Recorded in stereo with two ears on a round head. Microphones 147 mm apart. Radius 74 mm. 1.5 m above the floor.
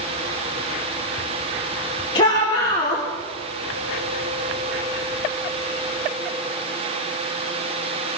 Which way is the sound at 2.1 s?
25° left (ahead or behind).